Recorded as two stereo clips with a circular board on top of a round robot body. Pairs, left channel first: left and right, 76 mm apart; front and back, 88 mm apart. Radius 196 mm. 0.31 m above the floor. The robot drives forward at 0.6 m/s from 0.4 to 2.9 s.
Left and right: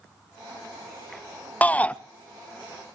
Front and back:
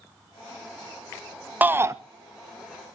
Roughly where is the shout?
Behind left.